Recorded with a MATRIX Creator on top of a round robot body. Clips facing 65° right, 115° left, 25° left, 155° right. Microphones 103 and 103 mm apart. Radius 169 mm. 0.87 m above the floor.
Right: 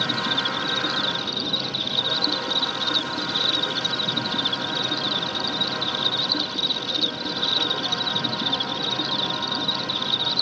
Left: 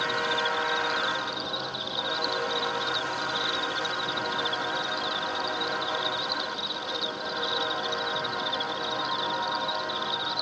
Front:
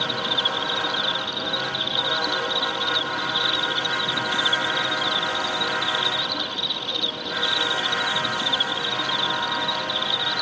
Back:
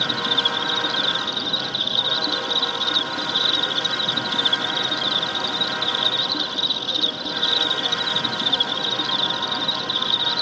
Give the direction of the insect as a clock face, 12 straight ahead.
3 o'clock.